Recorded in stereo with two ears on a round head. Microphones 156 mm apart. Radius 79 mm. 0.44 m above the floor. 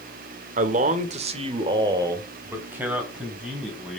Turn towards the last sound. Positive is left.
turn(degrees=0)  # may be behind; listen again after turning